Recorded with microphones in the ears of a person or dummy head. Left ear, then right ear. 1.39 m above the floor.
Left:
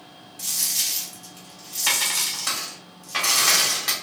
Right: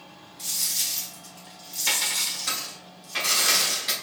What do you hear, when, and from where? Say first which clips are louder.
0.4 s a dropped coin: left 3 dB; 50° left (ahead or behind), 1.8 m